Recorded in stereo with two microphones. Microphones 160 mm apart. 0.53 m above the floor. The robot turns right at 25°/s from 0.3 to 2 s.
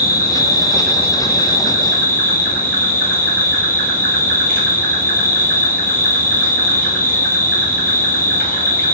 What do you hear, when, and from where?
0.0 s an insect: 75° left, 1.7 m; by 8.9 s 115° left, 1.7 m